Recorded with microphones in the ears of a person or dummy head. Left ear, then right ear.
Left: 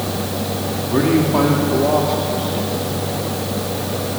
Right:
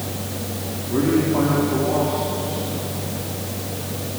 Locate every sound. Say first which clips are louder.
0.9 s a man speaking: left 3 dB; 85° left, 3 m; by 3.0 s 45° left (ahead or behind), 4.5 m